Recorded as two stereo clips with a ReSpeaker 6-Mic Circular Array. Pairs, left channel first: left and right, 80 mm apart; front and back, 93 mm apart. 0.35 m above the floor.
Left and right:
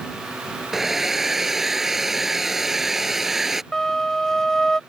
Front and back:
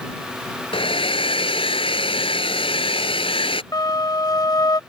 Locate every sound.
0.7 s a hair dryer: 5° right
3.7 s a flute: 10° left